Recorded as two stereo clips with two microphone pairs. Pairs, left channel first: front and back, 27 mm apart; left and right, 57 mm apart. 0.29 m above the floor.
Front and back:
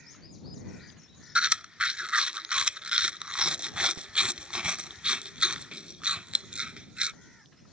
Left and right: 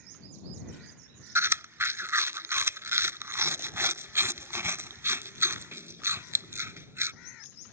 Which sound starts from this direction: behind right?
Chewing, at 1.4 s.